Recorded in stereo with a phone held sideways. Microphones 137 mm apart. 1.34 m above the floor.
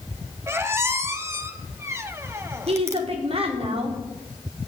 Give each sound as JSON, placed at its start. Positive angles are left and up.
{"t": 0.5, "sound": "a squeak", "side_deg": -20, "distance_m": 1.5}
{"t": 2.7, "sound": "a woman speaking", "side_deg": -50, "distance_m": 4.5}